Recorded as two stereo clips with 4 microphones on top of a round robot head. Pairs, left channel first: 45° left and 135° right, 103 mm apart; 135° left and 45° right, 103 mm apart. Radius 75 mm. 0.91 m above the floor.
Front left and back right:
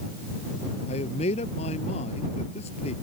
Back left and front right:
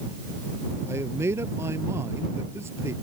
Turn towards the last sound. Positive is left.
turn(degrees=20)